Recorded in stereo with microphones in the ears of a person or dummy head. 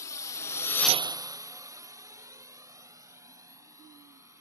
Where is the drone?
20° left (ahead or behind); by 4.4 s 20° right (ahead or behind).